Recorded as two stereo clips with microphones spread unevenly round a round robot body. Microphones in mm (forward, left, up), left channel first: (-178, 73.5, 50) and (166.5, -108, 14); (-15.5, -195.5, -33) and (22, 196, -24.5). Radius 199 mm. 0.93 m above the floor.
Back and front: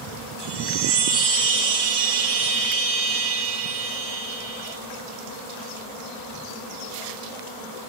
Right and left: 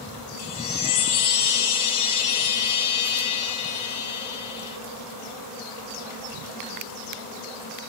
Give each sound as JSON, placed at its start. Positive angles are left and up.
{"t": 0.4, "sound": "a chime", "azimuth_deg": -50, "distance_m": 4.0}